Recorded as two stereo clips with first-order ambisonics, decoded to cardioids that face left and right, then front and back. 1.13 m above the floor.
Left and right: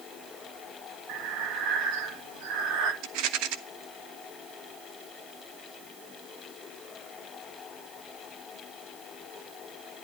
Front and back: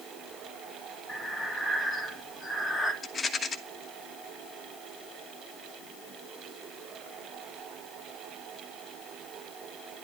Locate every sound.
1.1 s breathing: 90° right, 2 m
3.0 s a rattle: 75° right, 1.3 m